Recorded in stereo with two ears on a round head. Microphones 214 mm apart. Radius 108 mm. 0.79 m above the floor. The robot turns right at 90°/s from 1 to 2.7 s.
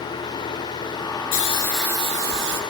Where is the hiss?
140° left, 2 m; by 2.6 s 105° right, 2 m.